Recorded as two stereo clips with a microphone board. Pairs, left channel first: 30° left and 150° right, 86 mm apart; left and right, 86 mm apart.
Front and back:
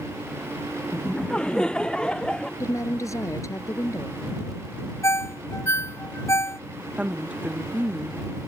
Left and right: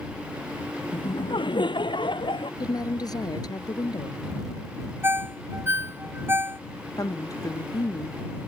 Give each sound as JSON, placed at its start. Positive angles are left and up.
{"t": 0.9, "sound": "laughter", "azimuth_deg": 110}
{"t": 2.6, "sound": "a woman speaking", "azimuth_deg": 70}
{"t": 5.0, "sound": "a ringtone", "azimuth_deg": -25}
{"t": 7.0, "sound": "a woman speaking", "azimuth_deg": 135}